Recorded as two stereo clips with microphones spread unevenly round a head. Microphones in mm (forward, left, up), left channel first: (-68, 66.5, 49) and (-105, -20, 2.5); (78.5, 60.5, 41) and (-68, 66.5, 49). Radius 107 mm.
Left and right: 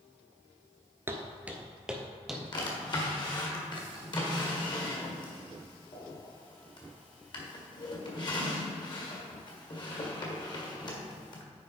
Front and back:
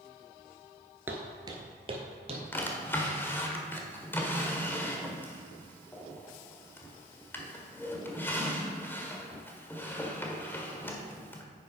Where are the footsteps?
140° left, 1.2 m.